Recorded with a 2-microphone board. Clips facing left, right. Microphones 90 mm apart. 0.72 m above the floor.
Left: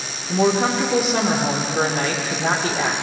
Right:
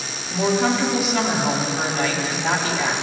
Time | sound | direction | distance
0.3 | a woman speaking | 50° left (ahead or behind) | 1.8 m